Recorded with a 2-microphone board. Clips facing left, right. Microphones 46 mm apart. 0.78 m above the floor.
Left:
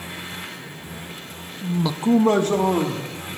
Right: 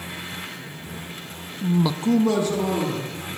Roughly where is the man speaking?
Right.